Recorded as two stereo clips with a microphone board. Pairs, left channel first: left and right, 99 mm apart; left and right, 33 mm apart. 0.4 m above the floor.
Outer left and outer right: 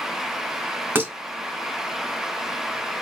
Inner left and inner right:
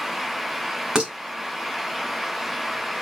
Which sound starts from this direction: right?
Dishes clattering, at 0.9 s.